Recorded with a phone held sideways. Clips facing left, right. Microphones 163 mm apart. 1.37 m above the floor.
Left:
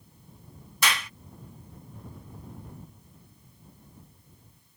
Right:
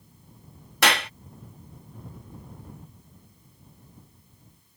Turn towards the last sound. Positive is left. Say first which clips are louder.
# right 6 dB
turn(degrees=-70)  # may be behind; listen again after turning